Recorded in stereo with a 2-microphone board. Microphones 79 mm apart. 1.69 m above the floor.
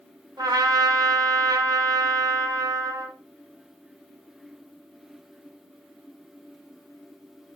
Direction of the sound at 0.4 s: 60° right (ahead or behind).